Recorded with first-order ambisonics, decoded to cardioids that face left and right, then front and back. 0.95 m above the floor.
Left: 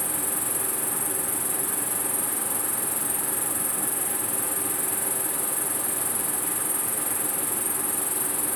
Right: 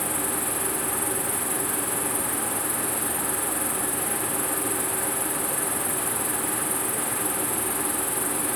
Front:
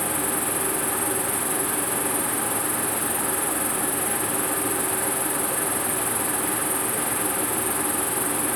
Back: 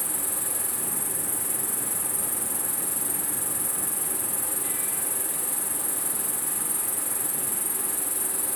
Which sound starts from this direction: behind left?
An insect, at 0.0 s.